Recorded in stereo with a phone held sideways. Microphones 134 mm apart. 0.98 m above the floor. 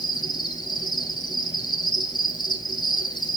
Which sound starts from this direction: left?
An insect, at 0.0 s.